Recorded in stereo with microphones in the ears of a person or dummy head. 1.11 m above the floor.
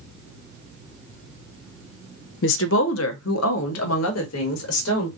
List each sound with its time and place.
2.4 s a woman speaking: 55° left (ahead or behind), 0.5 m; by 5.1 s 80° left, 1.8 m